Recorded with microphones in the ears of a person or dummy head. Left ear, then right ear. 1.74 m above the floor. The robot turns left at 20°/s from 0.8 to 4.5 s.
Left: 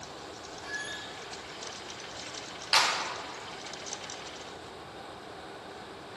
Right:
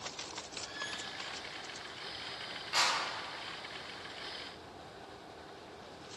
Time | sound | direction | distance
0.6 | a squeak | 65° left (ahead or behind) | 2.5 m
2.7 | a clap | 55° left (ahead or behind) | 2.5 m